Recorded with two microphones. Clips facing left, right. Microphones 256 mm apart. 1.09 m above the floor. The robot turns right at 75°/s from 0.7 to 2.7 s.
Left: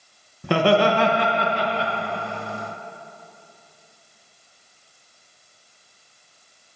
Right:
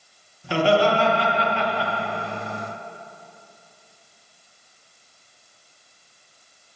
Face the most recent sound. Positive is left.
turn(degrees=-140)